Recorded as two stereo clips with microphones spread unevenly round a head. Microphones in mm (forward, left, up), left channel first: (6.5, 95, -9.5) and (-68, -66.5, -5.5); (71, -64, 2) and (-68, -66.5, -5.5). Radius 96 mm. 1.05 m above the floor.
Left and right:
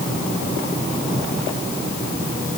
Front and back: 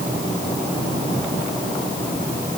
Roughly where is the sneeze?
I don't hear a sneeze.